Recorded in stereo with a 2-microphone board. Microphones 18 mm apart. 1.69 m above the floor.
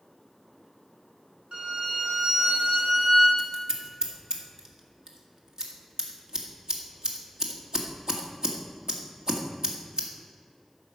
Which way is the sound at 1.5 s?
70° right (ahead or behind).